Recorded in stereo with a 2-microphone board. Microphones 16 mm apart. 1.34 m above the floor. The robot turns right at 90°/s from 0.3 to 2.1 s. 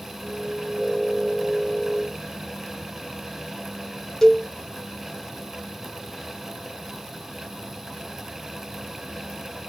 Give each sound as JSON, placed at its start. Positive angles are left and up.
{"t": 4.2, "sound": "a cowbell", "side_deg": 30, "distance_m": 1.1}